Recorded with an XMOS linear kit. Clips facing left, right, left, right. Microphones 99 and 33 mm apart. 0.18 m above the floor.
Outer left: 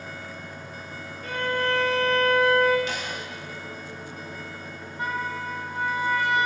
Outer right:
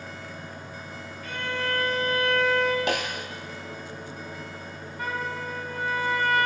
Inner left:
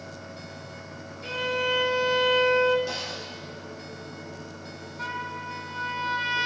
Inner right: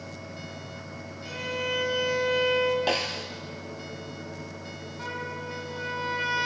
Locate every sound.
1.2 s a violin: 45° left (ahead or behind), 1.8 m
2.9 s a snare drum: 70° right (ahead or behind), 0.6 m
5.0 s a trumpet: 25° left (ahead or behind), 1.8 m